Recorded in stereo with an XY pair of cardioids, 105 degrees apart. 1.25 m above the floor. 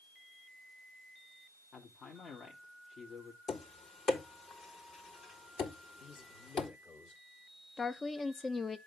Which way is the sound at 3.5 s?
55° left.